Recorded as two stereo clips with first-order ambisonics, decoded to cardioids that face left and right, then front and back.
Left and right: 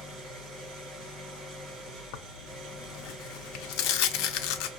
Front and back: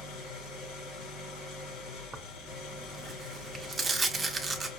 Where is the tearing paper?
100° left, 0.6 m.